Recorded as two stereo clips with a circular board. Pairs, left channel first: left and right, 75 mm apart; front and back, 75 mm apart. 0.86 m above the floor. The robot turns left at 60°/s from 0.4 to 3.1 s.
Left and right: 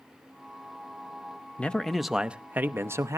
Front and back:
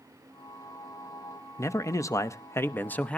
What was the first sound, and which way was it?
A man speaking, 25° left.